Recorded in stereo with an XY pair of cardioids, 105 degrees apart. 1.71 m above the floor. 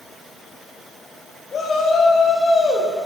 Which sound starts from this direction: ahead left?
A shout, at 1.5 s.